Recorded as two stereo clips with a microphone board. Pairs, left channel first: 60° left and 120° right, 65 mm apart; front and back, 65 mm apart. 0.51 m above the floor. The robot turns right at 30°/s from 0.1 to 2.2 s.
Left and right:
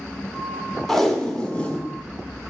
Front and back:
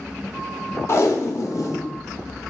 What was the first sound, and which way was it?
Tape being pulled, 25° right.